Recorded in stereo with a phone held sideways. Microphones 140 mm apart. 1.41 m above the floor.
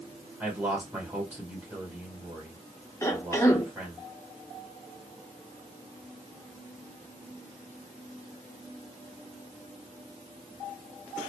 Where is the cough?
20° left (ahead or behind), 0.7 m.